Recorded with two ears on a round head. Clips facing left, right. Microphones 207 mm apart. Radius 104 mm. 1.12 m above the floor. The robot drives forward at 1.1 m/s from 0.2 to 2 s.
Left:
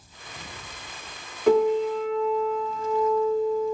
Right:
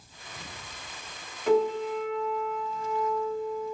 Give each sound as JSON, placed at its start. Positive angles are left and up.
{"t": 1.5, "sound": "a piano", "side_deg": 50, "distance_m": 2.5}